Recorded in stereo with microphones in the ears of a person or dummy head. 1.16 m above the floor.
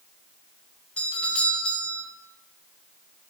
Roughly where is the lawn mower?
I don't hear a lawn mower.